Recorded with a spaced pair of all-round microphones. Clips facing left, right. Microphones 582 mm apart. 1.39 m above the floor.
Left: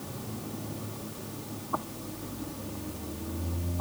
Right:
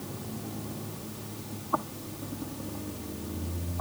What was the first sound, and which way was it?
Only background noise.